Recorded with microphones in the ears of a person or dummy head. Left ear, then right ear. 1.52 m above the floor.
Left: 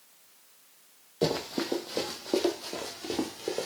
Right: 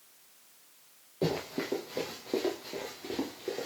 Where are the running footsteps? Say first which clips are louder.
Left 3 dB; 30° left (ahead or behind), 3 m; by 3.7 s 50° left (ahead or behind), 4 m.